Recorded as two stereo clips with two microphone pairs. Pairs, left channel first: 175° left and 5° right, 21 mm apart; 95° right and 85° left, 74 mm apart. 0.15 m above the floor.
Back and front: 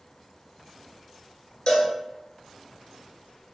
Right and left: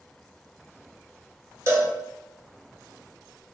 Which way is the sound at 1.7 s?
135° left.